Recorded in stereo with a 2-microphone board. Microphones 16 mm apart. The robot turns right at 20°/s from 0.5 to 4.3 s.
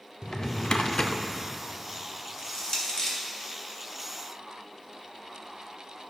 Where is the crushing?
45° left (ahead or behind), 1.6 m; by 3.2 s 50° left (ahead or behind), 1.6 m.